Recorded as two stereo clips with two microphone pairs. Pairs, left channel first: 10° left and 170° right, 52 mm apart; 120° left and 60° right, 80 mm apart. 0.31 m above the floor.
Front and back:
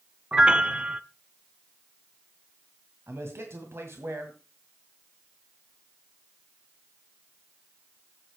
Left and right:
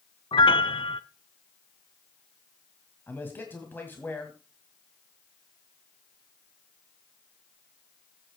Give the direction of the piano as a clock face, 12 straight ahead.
8 o'clock.